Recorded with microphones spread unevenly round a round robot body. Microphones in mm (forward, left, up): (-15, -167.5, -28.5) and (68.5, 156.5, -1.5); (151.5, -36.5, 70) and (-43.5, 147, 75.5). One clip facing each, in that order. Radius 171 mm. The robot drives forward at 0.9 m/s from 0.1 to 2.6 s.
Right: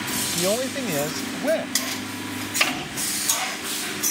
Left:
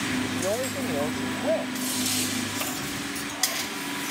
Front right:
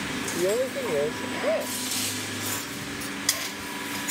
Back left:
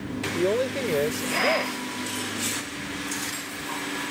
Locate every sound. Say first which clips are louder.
0.3 s a woman speaking: right 3 dB, back left 1 dB; 140° right; by 1.8 s 155° right